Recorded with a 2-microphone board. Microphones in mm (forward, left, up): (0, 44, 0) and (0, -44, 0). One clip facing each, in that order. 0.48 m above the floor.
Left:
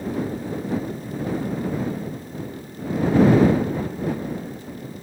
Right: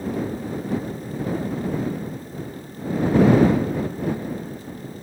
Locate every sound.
Only background noise.